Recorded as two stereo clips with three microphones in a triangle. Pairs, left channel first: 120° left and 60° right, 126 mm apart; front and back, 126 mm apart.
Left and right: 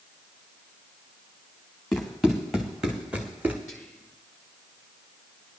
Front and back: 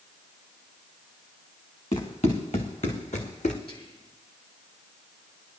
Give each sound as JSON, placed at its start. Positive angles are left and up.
{"t": 1.9, "sound": "running footsteps", "azimuth_deg": 35, "distance_m": 2.5}
{"t": 3.7, "sound": "whispering", "azimuth_deg": 35, "distance_m": 4.0}